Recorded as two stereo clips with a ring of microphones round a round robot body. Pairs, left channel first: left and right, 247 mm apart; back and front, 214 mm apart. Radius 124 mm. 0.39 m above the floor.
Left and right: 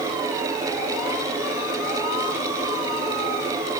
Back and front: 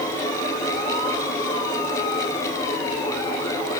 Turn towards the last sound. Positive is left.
No sound to turn to.